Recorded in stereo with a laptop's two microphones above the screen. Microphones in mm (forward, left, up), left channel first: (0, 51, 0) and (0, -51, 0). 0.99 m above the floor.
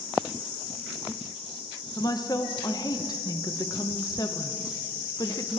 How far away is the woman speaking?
About 1.0 m.